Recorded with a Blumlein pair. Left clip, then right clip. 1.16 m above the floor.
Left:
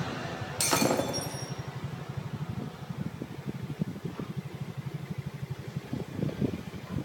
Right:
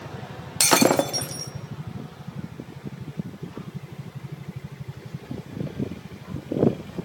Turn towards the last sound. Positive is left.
turn(degrees=-25)